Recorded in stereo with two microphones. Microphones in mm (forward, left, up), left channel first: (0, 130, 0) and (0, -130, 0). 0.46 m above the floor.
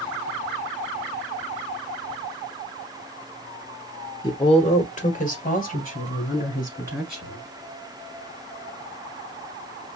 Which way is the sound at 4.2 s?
15° left (ahead or behind).